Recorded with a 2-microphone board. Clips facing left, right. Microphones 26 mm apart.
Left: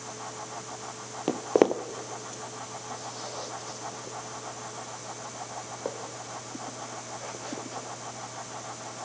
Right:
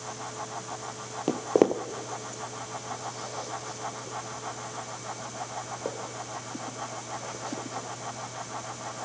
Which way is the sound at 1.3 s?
20° left (ahead or behind).